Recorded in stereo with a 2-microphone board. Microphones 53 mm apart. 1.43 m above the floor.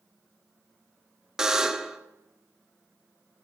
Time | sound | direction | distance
1.4 | a buzzer | 10° right (ahead or behind) | 0.7 m